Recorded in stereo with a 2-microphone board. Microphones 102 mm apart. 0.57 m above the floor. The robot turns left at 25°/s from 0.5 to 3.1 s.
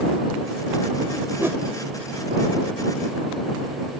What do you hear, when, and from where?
1.4 s a whoosh: 20° right (ahead or behind); by 1.6 s 25° right (ahead or behind)